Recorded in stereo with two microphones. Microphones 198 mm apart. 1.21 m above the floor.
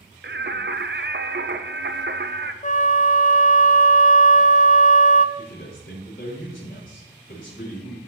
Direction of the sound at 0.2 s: 60° right (ahead or behind).